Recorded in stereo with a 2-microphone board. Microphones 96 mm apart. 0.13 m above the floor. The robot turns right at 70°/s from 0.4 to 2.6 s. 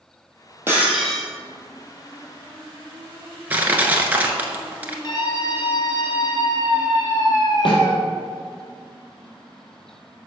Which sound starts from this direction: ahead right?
Breaking glass, at 0.7 s.